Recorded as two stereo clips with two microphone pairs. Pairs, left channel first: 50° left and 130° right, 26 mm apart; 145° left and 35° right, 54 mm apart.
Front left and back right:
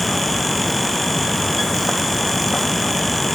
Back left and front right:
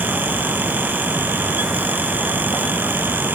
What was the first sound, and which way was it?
Only background noise.